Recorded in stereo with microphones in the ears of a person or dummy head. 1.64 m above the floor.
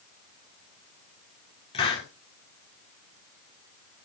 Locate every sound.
1.7 s a hiss: 30° left (ahead or behind), 4 m